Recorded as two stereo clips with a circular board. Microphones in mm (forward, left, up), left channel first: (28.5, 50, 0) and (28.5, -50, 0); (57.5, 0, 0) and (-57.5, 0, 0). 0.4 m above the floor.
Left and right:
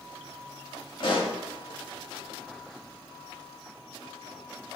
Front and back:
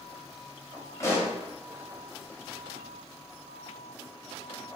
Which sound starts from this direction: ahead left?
A pop, at 1.0 s.